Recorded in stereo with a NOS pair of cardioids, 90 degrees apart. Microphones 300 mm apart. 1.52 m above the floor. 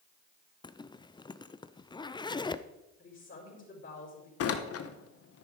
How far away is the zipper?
About 0.5 m.